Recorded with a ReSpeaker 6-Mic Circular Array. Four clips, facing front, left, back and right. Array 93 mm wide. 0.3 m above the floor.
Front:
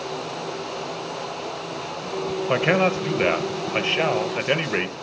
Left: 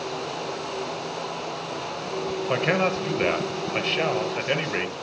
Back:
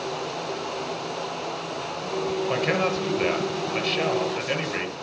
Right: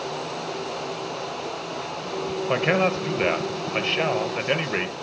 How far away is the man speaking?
About 1.1 m.